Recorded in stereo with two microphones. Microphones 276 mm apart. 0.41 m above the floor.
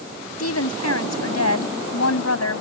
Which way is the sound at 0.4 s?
65° left (ahead or behind).